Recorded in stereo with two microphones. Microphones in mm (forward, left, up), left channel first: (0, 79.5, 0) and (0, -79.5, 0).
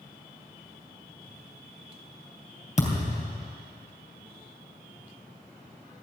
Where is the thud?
45° left (ahead or behind), 3.5 m.